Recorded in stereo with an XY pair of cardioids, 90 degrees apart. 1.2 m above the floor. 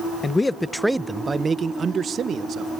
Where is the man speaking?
35° left, 0.6 m; by 2.7 s 65° right, 1.2 m.